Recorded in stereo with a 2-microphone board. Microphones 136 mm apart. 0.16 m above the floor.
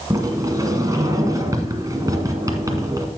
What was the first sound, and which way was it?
A sliding door, 25° right (ahead or behind).